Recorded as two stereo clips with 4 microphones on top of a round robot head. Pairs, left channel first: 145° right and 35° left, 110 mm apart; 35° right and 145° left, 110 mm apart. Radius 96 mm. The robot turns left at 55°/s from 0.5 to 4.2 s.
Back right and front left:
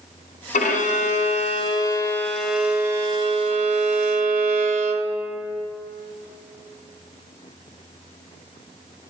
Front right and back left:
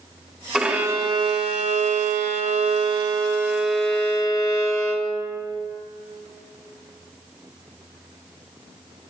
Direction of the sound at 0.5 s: 130° right.